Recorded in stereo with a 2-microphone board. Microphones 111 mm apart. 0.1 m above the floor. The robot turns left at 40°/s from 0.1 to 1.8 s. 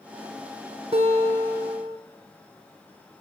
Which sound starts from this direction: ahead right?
A guitar, at 0.9 s.